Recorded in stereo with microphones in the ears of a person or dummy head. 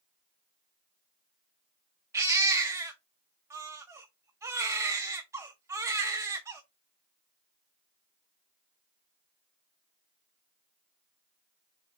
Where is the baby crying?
15° right (ahead or behind), 0.9 m.